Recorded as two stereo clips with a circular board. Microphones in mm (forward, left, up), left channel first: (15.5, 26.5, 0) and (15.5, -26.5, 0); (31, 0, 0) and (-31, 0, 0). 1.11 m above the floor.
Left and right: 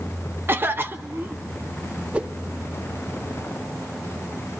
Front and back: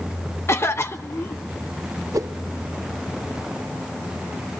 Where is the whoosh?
155° right, 0.8 m.